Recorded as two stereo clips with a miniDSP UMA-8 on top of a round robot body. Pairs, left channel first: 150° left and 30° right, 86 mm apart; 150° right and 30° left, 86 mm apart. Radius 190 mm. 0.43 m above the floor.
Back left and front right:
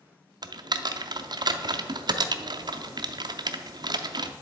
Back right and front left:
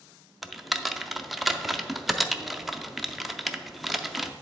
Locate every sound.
0.4 s typing on a keyboard: 60° right, 0.6 m